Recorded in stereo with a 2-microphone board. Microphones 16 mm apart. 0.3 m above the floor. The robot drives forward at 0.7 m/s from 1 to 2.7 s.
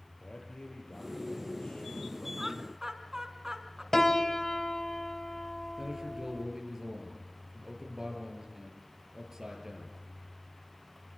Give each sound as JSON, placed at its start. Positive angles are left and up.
{"t": 0.2, "sound": "a man speaking", "side_deg": 75, "distance_m": 7.5}
{"t": 2.4, "sound": "laughter", "side_deg": -25, "distance_m": 3.5}
{"t": 3.9, "sound": "a piano", "side_deg": 25, "distance_m": 1.6}
{"t": 5.8, "sound": "a man speaking", "side_deg": -25, "distance_m": 7.5}